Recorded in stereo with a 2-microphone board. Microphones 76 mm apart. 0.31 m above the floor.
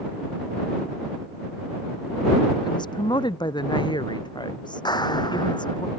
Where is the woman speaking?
75° left (ahead or behind); by 5.8 s 80° left.